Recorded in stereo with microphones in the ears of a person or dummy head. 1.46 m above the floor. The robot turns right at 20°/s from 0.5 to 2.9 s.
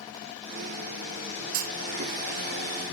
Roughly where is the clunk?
Right.